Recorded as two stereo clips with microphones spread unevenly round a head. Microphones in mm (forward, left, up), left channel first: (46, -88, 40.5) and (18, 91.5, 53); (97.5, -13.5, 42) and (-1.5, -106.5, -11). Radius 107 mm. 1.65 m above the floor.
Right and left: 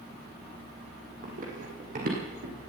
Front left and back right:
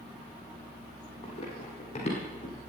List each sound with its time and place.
1.2 s running footsteps: 60° left, 3 m; by 2.7 s 65° left, 3.5 m